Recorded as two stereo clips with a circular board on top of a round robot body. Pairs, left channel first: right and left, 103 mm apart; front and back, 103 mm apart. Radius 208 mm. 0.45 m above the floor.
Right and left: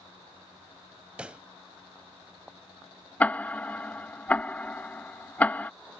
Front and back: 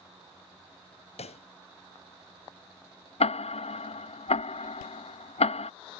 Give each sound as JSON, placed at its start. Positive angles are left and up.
{"t": 1.2, "sound": "a pop", "azimuth_deg": 10}
{"t": 3.2, "sound": "ticking", "azimuth_deg": -15}